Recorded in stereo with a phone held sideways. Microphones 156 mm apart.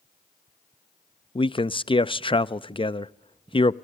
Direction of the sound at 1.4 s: 35° left (ahead or behind).